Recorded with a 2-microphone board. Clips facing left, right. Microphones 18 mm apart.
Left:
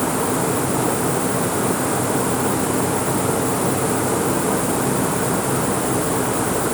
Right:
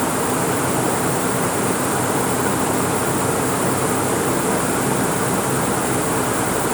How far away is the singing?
I don't hear singing.